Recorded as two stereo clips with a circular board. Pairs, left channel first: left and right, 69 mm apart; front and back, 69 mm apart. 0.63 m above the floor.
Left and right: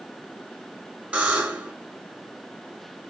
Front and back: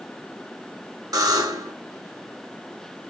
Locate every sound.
1.1 s a buzzer: 165° right, 1.4 m